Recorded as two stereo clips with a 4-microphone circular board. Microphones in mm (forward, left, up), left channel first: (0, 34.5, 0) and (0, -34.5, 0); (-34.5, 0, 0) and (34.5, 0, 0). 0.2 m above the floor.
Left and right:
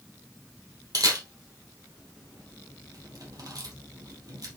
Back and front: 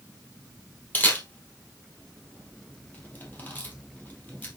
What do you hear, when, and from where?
0.9 s a camera shutter: 115° right, 3 m